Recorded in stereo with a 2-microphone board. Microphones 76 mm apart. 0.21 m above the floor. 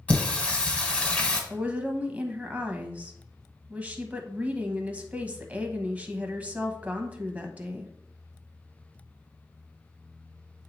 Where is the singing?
15° left (ahead or behind), 1.5 m.